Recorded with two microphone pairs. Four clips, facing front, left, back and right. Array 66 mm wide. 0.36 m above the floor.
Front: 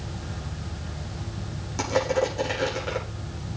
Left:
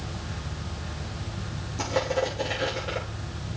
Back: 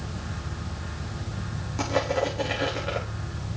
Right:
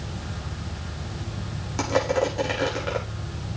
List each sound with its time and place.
1.8 s crushing: 85° right, 7.5 m